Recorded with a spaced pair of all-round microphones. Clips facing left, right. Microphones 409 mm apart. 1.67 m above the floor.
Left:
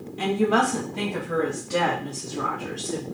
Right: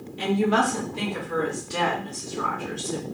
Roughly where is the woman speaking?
Left.